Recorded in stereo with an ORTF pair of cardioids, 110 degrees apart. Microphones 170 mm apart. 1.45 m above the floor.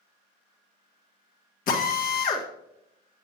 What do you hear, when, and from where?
1.7 s a drill: 55° left, 1.6 m